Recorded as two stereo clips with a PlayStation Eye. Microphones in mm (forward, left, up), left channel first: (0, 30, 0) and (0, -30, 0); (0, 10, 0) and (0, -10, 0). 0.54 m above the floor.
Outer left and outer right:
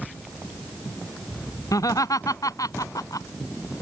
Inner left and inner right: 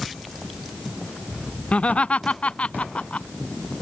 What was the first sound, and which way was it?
Laughter, 75° left (ahead or behind).